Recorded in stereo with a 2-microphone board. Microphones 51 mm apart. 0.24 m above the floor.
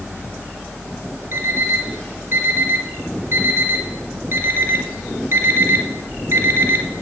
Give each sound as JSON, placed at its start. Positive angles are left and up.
{"t": 1.3, "sound": "an alarm clock", "side_deg": -55, "distance_m": 1.4}